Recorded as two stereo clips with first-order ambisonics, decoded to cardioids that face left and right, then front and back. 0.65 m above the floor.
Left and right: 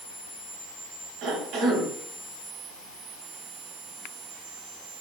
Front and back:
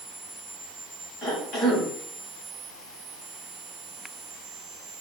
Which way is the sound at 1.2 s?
55° right.